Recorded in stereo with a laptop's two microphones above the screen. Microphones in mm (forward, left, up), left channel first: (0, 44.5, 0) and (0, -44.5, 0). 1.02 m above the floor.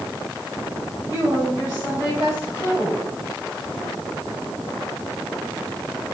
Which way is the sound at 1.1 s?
40° left (ahead or behind).